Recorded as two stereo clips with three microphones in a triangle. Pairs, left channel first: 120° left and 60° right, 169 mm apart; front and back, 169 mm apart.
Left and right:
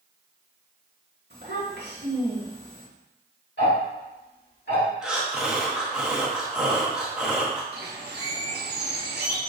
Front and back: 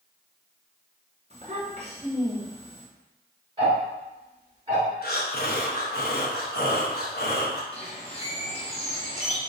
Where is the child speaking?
125° left, 1.5 m.